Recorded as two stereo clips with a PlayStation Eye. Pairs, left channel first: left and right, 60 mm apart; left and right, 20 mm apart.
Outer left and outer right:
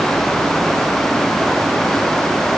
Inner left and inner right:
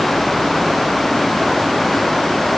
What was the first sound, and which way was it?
Only background noise.